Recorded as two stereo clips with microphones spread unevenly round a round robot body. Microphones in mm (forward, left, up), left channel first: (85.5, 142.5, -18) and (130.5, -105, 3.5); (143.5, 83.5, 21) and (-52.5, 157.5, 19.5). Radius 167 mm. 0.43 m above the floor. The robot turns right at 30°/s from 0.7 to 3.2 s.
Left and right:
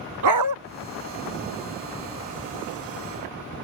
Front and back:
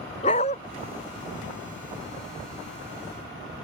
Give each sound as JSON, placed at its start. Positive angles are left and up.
{"t": 0.2, "sound": "a dog barking", "azimuth_deg": -90}